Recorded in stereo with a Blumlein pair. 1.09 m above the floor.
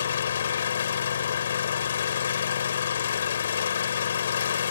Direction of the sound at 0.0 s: 65° left.